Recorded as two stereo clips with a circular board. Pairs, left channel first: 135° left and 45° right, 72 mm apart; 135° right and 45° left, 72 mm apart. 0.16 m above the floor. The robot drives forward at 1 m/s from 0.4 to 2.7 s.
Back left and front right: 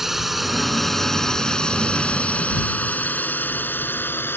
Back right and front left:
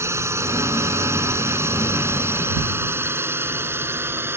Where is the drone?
40° left; by 4.4 s 90° left.